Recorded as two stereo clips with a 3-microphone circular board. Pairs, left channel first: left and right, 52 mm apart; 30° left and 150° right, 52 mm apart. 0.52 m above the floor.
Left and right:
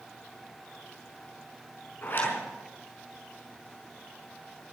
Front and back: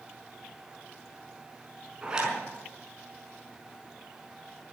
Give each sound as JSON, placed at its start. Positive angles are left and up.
{"t": 2.0, "sound": "a zipper", "azimuth_deg": 135, "distance_m": 5.0}